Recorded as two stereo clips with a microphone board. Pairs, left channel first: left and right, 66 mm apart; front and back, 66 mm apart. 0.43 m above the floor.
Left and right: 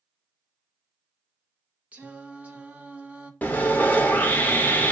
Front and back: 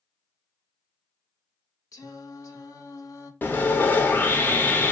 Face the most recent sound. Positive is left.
turn(degrees=40)